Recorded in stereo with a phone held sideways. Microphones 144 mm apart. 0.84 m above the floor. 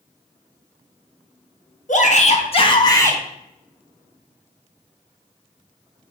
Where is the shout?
60° left (ahead or behind), 1.6 m; by 3.2 s 15° left (ahead or behind), 1.1 m.